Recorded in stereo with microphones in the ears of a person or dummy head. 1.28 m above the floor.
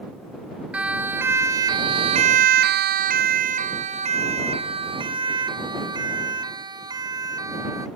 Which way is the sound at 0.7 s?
10° right (ahead or behind).